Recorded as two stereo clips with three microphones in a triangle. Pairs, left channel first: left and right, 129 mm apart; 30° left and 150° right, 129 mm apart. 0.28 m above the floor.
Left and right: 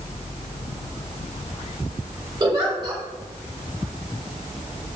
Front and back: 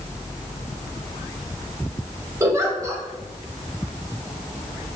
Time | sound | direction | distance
2.4 | a giggle | 100° right | 0.8 m